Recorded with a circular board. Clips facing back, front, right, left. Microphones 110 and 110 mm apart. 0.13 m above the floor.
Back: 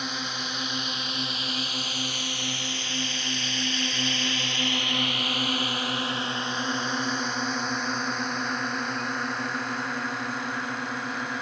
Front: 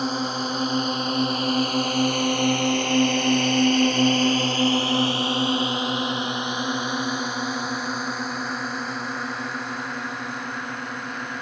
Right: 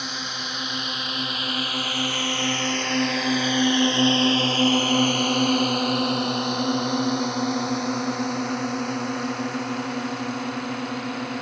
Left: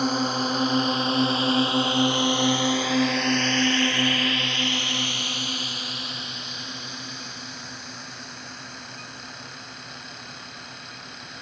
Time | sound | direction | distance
0.0 | a drone | 45° left | ?